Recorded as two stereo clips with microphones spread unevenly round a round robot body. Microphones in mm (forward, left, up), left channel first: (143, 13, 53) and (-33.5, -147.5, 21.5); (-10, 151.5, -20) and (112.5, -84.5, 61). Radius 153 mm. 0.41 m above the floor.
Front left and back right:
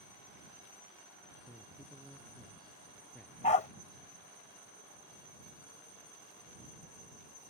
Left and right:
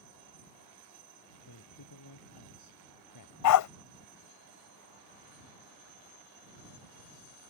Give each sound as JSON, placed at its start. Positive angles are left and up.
{"t": 1.5, "sound": "a man speaking", "azimuth_deg": 130}
{"t": 3.4, "sound": "a dog barking", "azimuth_deg": 110}